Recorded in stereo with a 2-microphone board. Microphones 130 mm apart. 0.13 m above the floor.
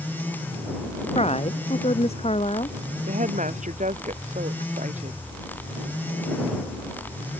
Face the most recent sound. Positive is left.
turn(degrees=-75)  # may be behind; listen again after turning